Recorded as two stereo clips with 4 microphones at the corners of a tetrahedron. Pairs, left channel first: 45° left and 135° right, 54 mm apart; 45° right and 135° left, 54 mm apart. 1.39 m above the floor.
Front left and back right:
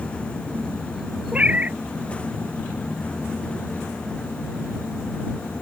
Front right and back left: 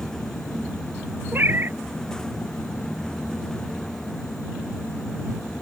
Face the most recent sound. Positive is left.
turn(degrees=170)